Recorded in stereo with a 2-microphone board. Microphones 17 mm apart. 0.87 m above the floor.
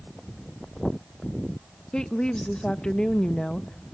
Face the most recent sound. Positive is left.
turn(degrees=50)  # may be behind; listen again after turning